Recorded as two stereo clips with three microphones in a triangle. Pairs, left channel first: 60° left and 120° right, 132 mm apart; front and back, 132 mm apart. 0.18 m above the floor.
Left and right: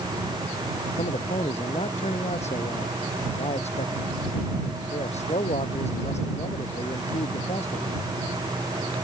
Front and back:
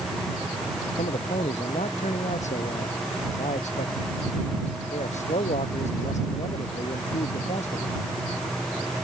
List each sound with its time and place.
1.0 s a man speaking: 25° left